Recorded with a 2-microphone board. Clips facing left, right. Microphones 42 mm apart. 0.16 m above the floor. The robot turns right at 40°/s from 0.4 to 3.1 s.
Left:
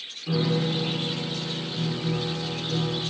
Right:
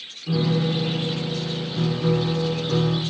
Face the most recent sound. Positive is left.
turn(degrees=-80)